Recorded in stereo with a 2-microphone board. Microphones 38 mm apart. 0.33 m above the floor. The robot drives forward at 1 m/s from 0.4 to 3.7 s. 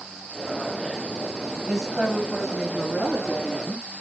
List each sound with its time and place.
1.7 s a woman speaking: 15° right (ahead or behind), 1.3 m; by 3.9 s 5° right (ahead or behind), 3 m